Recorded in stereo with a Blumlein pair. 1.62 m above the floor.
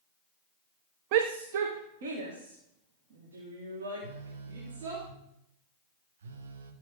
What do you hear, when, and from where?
1.1 s a shout: 45° right, 0.6 m; by 5.0 s 60° right, 5.5 m
4.0 s a phone buzzing: 60° right, 1.4 m